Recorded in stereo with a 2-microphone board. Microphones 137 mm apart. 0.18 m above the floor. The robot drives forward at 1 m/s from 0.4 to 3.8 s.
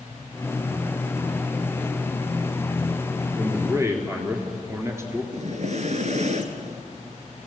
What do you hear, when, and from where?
3.4 s a man speaking: 15° right (ahead or behind), 4 m; by 5.2 s 20° right (ahead or behind), 3.5 m
5.3 s breathing: 55° right (ahead or behind), 1.6 m